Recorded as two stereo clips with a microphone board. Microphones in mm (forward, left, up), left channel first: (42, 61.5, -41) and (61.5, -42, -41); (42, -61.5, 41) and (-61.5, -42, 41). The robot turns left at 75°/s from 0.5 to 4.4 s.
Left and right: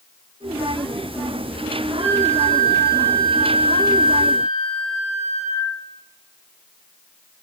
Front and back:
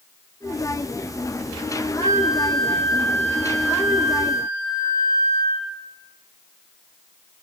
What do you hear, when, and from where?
2.0 s a flute: 105° left, 5 m; by 5.8 s 75° right, 5 m